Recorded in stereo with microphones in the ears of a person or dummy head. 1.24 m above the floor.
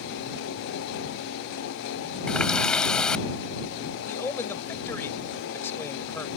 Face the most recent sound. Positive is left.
turn(degrees=20)  # may be behind; listen again after turning